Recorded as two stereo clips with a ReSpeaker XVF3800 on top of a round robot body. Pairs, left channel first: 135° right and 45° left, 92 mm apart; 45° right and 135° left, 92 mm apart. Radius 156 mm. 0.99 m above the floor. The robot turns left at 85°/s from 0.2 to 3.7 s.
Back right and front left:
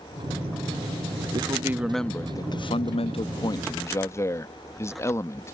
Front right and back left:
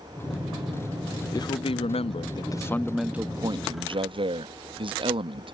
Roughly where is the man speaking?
Ahead.